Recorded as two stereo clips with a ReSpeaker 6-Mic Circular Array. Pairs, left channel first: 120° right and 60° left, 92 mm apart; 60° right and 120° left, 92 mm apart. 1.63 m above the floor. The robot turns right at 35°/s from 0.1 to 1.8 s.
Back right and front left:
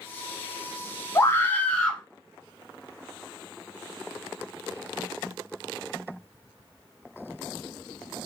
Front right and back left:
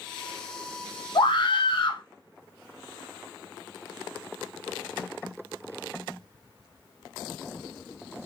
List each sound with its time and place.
1.1 s a scream: 65° right, 0.9 m; by 2.0 s 45° right, 0.9 m